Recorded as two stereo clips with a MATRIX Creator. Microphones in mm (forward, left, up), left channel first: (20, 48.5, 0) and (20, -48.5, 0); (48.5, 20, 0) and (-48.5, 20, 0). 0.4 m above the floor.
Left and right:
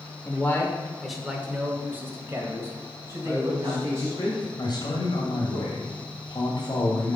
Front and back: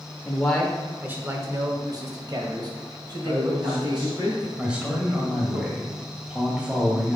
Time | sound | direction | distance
0.2 | a man speaking | 60° left | 1.4 m
3.2 | a man speaking | 155° left | 2.5 m
4.6 | a man speaking | 105° left | 2 m